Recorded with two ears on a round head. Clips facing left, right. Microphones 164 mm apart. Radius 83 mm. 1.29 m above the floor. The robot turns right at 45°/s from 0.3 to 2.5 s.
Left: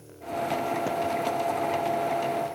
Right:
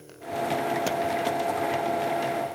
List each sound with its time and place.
Only background noise.